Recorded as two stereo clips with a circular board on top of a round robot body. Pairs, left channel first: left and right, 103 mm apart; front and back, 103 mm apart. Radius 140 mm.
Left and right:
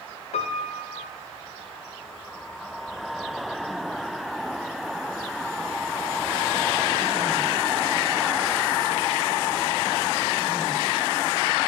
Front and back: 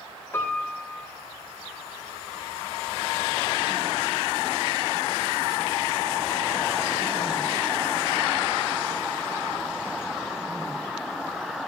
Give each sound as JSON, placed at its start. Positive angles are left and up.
{"t": 0.3, "sound": "a piano", "azimuth_deg": 70, "distance_m": 1.2}